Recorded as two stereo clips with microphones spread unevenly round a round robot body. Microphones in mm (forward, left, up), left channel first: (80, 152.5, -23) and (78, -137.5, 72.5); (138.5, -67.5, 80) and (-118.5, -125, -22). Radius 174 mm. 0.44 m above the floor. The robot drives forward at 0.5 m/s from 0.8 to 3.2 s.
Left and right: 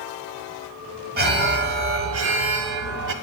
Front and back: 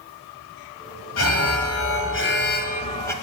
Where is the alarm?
25° right, 1.2 m; by 3.1 s 90° right, 0.7 m.